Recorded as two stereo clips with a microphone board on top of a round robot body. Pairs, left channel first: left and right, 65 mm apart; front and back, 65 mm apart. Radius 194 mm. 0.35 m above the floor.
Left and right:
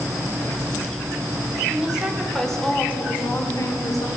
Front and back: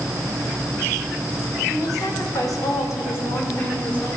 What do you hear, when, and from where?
1.7 s a woman speaking: 15° right, 2 m; by 4.1 s 70° left, 2 m